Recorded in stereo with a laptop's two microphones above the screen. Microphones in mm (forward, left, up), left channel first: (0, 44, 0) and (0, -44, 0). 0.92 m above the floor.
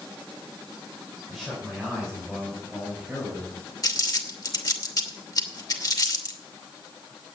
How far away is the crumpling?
About 2.5 m.